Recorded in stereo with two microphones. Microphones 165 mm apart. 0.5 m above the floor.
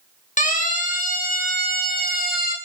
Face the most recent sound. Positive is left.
turn(degrees=65)  # may be behind; listen again after turning